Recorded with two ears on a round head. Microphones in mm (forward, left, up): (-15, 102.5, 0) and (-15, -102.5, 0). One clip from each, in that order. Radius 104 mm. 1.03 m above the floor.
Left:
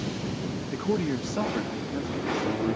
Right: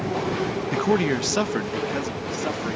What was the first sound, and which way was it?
A man speaking, 45° right (ahead or behind).